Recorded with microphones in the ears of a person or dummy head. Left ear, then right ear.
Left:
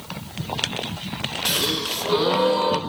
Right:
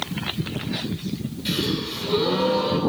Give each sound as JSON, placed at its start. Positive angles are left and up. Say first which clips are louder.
{"t": 1.4, "sound": "a gasp", "louder": "left 3 dB", "side_deg": 30, "distance_m": 1.6}